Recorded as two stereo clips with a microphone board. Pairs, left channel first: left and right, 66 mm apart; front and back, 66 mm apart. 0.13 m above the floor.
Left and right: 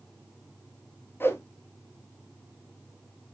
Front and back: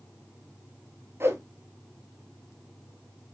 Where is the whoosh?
140° left, 0.7 m.